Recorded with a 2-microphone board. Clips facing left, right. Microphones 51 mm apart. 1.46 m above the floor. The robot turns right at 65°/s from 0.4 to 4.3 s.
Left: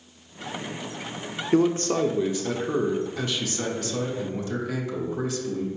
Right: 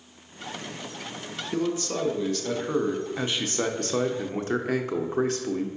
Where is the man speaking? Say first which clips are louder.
Left 7 dB; 105° left, 0.5 m; by 5.7 s 75° right, 0.5 m.